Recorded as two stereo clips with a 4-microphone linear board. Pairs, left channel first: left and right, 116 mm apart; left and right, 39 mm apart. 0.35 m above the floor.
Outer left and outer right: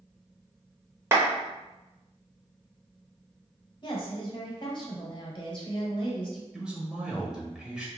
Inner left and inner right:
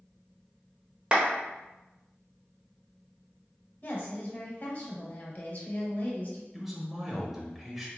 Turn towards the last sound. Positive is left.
turn(degrees=-5)  # may be behind; listen again after turning